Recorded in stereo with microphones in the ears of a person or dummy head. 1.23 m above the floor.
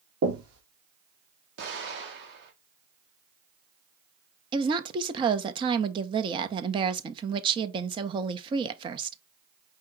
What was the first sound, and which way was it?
Knocking, 85° right.